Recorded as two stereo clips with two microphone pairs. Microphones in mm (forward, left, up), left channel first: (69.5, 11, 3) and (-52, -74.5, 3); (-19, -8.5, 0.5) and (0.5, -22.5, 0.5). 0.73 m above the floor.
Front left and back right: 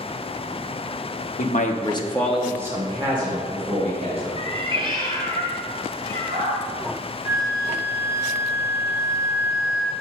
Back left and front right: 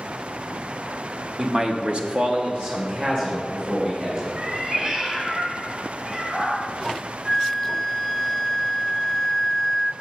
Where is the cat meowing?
90° right, 1.7 m.